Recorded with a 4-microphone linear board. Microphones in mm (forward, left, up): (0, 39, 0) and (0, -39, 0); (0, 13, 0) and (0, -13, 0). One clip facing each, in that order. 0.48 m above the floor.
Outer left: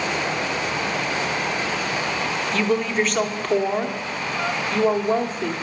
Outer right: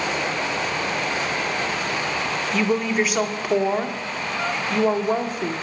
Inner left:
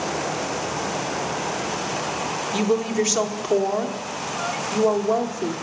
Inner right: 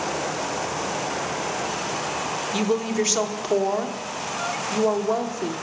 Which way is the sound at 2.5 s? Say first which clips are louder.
Even, inner left 2 dB; 5° right (ahead or behind).